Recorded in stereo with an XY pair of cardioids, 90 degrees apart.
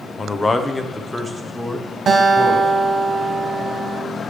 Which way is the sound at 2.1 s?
55° right.